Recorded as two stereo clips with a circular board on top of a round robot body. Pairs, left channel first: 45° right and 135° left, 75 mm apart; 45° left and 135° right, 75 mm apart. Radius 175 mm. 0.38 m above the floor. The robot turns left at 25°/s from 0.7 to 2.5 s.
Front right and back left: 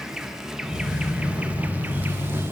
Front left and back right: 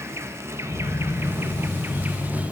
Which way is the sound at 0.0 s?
145° right.